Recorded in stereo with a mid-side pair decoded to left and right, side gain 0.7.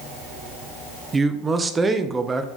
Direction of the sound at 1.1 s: 20° right.